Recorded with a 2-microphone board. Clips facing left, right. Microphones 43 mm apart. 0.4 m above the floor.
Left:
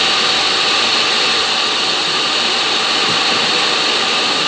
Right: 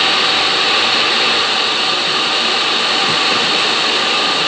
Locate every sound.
Only background noise.